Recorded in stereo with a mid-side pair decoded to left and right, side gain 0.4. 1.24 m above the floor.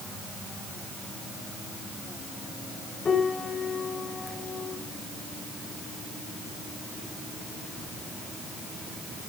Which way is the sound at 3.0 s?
45° left.